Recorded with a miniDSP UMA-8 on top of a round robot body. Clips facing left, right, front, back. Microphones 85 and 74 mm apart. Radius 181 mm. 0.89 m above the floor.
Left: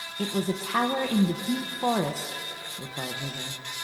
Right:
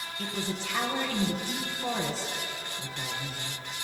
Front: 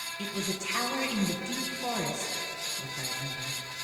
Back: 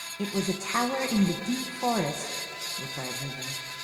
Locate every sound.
0.2 s a man speaking: 130° left, 0.9 m